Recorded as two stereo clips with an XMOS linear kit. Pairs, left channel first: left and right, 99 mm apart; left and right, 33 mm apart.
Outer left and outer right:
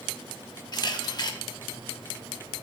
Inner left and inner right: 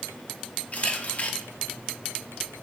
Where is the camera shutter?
45° left (ahead or behind), 0.7 m.